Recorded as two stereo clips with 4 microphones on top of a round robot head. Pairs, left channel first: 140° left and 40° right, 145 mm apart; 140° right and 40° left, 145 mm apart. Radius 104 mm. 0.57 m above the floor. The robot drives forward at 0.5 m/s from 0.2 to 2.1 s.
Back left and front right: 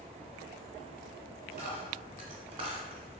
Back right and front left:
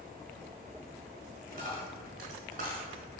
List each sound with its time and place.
1.5 s a dropped coin: 5° left, 1.0 m; by 3.0 s 10° left, 0.8 m